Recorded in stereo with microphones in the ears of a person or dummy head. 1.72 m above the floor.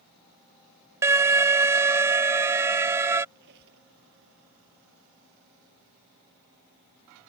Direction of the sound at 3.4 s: 60° right (ahead or behind).